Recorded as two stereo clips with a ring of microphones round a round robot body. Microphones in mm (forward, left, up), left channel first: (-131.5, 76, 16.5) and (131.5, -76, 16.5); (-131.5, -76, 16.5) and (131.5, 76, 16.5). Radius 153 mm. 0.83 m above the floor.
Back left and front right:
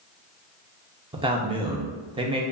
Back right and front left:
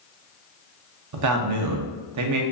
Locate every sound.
1.1 s a man speaking: 40° left, 0.6 m